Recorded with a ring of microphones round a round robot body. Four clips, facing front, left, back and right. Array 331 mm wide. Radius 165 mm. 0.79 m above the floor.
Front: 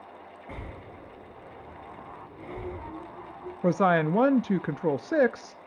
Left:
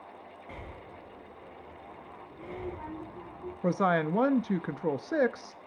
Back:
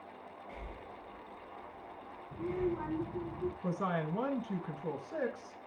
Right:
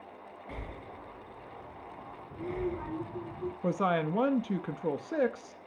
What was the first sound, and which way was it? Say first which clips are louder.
Breathing: right 2 dB, front 6 dB; 15° right.